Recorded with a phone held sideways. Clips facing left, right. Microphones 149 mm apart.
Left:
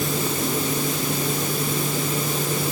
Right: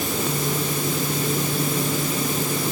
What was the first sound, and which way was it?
Only background noise.